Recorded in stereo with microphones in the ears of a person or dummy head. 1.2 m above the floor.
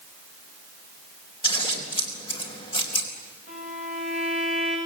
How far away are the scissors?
About 3.5 m.